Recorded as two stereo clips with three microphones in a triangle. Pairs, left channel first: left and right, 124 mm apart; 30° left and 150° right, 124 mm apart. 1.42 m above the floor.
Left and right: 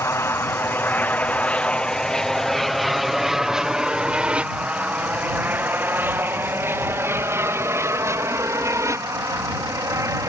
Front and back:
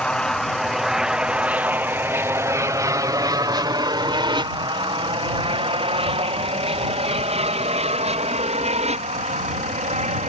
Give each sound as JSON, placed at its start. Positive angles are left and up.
{"t": 0.0, "sound": "an aircraft", "azimuth_deg": 100}